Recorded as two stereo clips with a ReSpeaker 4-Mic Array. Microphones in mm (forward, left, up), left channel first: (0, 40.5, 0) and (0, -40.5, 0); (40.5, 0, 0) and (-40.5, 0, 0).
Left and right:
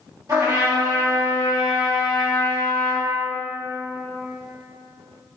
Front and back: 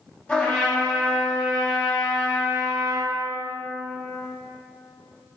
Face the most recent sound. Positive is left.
turn(degrees=-70)